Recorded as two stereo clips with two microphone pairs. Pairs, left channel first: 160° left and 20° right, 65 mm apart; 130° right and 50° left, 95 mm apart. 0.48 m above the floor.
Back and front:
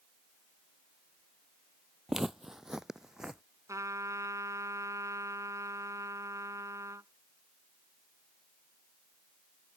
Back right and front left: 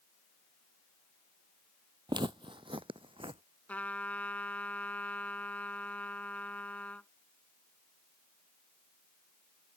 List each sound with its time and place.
2.1 s footsteps: 65° left
3.7 s a trumpet: 55° right